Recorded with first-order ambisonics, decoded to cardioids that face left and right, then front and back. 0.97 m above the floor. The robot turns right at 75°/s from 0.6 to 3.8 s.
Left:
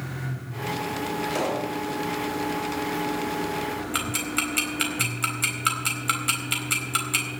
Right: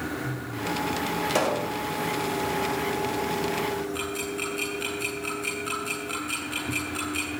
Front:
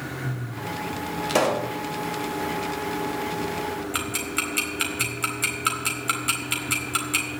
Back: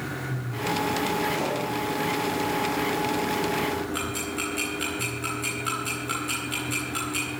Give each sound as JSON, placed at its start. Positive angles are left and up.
{"t": 1.3, "sound": "a pop", "azimuth_deg": -30, "distance_m": 2.0}
{"t": 3.9, "sound": "ticking", "azimuth_deg": 55, "distance_m": 3.5}